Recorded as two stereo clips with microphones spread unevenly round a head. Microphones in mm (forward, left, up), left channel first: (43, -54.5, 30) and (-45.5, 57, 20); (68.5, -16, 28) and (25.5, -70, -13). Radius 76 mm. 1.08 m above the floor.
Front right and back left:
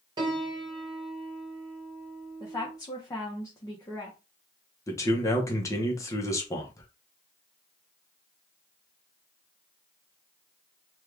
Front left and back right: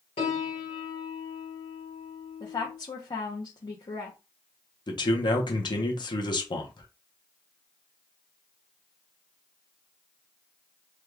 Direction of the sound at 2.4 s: 20° left.